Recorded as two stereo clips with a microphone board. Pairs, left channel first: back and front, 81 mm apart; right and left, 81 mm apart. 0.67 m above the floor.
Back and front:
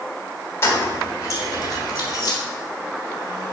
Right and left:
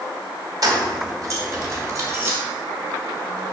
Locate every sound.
0.6 s keys jangling: 125° left, 1.3 m; by 2.4 s 145° left, 2 m